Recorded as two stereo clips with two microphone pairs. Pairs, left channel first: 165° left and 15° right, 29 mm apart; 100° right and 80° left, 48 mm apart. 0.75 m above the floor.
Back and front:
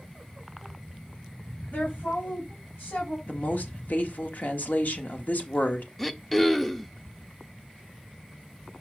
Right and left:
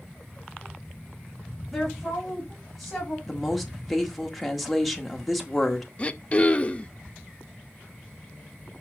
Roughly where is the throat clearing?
Behind right.